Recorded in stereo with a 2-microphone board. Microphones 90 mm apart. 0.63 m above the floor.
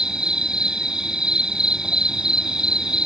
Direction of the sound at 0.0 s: 10° right (ahead or behind).